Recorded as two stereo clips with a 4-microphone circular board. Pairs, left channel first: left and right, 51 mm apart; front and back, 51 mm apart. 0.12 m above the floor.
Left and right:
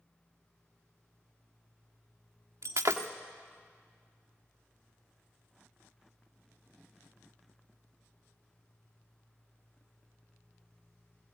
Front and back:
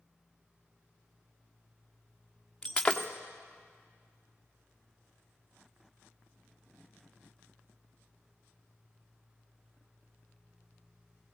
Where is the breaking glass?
75° right, 1.4 m.